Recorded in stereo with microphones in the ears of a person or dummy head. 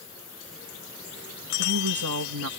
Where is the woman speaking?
80° right.